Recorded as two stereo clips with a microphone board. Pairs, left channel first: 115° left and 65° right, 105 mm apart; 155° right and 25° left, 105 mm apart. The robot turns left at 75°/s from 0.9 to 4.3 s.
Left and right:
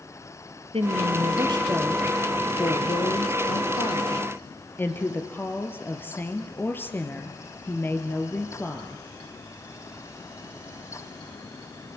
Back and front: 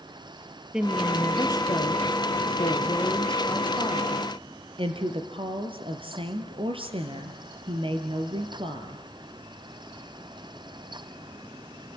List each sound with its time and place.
0.7 s a woman speaking: 60° right, 3 m; by 9.1 s 45° left, 3 m